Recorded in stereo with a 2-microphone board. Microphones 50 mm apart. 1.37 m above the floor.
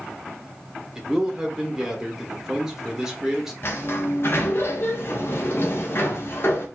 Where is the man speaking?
10° right (ahead or behind), 1.3 m.